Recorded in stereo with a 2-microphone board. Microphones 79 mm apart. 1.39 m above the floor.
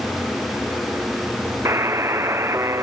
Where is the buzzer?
35° right (ahead or behind), 0.5 m.